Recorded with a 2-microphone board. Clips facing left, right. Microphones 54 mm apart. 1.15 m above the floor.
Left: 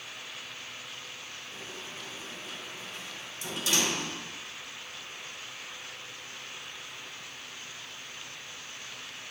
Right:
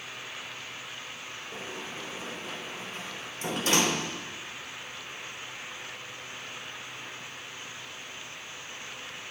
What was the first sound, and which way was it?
A sliding door, 45° right (ahead or behind).